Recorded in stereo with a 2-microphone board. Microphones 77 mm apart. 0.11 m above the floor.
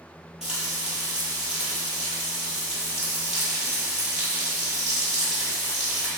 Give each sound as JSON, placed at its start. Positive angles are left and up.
{"t": 0.4, "sound": "frying", "side_deg": -10, "distance_m": 1.6}